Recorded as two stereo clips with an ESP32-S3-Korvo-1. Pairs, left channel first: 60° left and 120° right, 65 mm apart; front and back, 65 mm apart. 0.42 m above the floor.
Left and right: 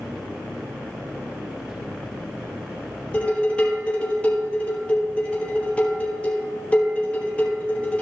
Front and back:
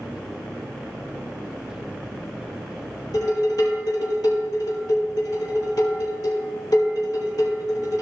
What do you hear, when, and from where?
3.1 s dishes clattering: 15° right, 6 m